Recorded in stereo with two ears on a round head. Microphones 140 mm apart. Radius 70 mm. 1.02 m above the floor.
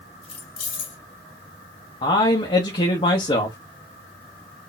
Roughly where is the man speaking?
Left.